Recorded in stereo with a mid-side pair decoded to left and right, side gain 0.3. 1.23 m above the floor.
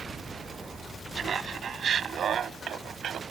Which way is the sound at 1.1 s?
70° right.